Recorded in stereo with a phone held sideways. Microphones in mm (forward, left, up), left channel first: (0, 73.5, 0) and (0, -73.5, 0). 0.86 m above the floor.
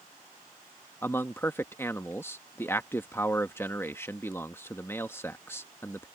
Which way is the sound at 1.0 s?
15° left (ahead or behind).